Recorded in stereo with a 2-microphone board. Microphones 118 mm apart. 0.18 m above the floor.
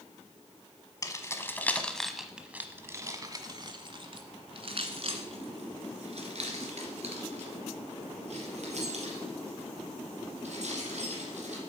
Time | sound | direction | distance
1.0 | keys jangling | 30° left (ahead or behind) | 1.1 m